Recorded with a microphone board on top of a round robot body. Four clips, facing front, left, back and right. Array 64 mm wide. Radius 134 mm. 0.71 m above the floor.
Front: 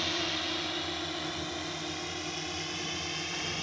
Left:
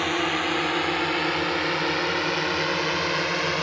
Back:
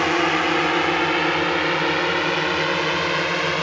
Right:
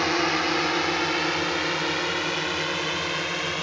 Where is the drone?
170° right; by 3.6 s 165° left.